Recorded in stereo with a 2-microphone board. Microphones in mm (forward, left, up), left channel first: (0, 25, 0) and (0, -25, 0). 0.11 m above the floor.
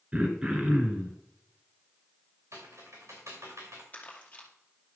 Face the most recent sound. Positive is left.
turn(degrees=30)  # may be behind; listen again after turning